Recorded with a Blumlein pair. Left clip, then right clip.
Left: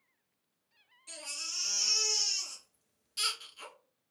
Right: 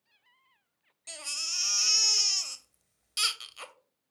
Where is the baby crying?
35° right, 0.5 m.